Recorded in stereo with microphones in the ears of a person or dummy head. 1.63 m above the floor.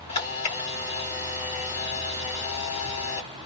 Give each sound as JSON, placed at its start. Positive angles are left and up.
{"t": 0.1, "sound": "a camera shutter", "side_deg": 30, "distance_m": 2.0}